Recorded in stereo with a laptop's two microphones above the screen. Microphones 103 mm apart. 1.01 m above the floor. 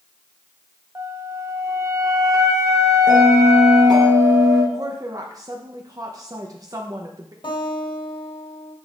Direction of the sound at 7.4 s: 60° left (ahead or behind).